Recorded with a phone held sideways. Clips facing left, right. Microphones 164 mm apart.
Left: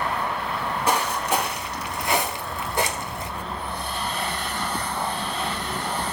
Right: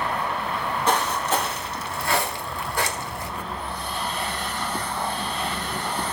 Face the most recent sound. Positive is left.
turn(degrees=20)  # may be behind; listen again after turning